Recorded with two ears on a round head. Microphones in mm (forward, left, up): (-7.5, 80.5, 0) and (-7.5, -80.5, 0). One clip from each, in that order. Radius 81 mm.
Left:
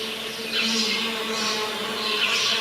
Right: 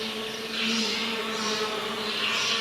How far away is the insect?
About 2 m.